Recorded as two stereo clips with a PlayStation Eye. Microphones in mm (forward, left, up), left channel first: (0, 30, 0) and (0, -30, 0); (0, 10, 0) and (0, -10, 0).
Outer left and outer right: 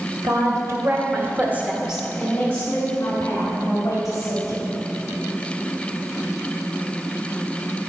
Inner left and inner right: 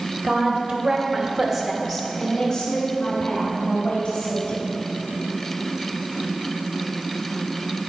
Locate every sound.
0.2 s a woman speaking: 65° right (ahead or behind), 2 m; by 4.7 s 55° left (ahead or behind), 3.5 m